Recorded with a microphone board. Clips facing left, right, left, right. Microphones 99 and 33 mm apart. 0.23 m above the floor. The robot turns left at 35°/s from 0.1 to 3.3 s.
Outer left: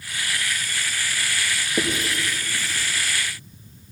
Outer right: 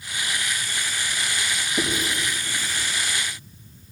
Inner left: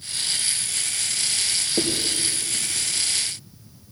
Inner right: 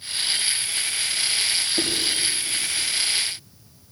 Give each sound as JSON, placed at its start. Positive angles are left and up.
{"t": 1.8, "sound": "writing", "side_deg": 55, "distance_m": 5.0}